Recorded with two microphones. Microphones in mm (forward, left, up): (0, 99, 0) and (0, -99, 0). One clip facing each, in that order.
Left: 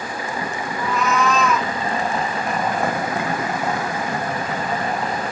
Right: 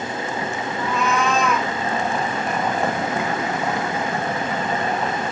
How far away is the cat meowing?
About 1.3 m.